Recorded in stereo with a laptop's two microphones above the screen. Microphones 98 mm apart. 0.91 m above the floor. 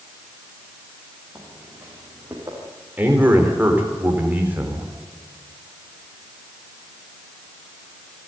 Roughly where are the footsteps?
Centre.